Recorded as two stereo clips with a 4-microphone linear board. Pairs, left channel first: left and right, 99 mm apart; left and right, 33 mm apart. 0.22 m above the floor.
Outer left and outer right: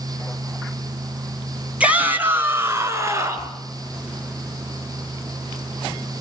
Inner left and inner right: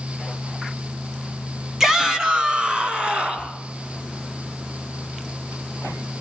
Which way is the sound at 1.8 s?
10° right (ahead or behind).